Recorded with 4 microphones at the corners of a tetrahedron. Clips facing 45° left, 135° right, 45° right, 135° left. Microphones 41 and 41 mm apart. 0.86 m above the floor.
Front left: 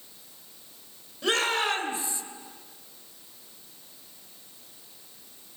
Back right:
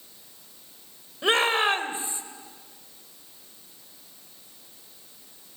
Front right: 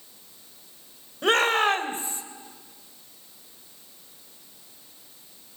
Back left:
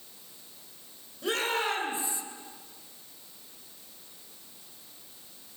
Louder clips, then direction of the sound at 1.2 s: Back right 4 dB, front right 8 dB; 75° right.